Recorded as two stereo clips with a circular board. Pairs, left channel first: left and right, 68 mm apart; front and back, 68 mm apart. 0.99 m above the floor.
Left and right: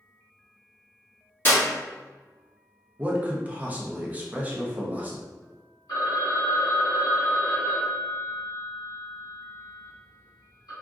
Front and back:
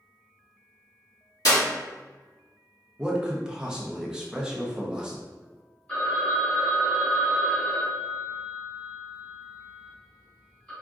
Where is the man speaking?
115° right, 0.6 m.